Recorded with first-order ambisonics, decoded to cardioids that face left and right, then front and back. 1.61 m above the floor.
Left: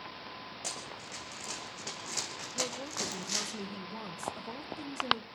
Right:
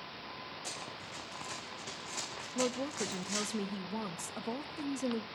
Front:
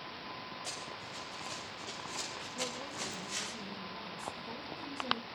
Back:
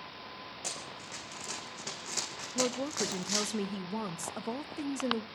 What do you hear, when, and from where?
0.6 s running footsteps: 140° left, 7 m; by 3.5 s 145° left, 4.5 m
2.5 s a woman speaking: 165° right, 0.9 m